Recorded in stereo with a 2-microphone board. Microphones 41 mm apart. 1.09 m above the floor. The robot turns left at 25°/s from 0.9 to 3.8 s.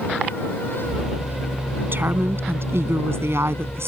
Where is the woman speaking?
55° right; by 3.9 s 105° right.